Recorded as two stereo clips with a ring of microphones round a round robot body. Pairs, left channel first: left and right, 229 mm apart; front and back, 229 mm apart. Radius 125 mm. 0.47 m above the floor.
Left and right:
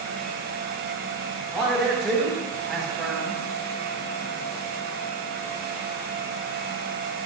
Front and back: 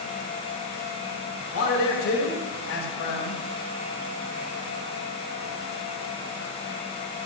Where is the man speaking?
Straight ahead, 3 m.